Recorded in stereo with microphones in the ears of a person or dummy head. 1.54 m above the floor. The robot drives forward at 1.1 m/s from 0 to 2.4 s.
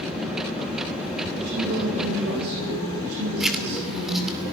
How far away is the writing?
About 2.5 m.